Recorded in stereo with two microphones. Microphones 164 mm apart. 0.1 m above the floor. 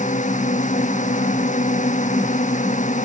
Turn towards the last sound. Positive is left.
turn(degrees=50)  # may be behind; listen again after turning